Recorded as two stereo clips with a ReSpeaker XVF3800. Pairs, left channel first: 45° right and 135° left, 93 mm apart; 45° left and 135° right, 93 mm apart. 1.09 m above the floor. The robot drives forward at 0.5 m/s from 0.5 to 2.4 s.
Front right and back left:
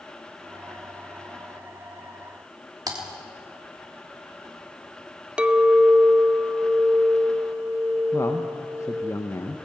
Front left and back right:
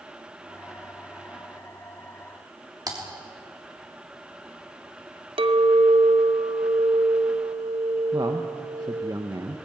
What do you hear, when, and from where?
2.9 s typing on a keyboard: straight behind, 3 m
5.4 s a clink: 145° right, 0.8 m
8.1 s a man speaking: 95° right, 1.2 m